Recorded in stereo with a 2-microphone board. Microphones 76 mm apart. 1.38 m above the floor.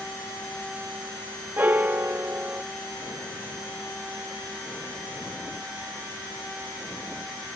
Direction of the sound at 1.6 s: 30° right (ahead or behind).